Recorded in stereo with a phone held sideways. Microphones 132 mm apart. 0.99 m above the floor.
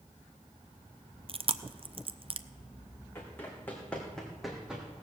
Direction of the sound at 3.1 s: 20° left (ahead or behind).